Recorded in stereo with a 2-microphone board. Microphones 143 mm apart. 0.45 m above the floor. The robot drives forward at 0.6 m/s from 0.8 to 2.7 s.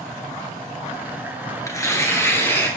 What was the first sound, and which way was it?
Tearing paper, 20° left (ahead or behind).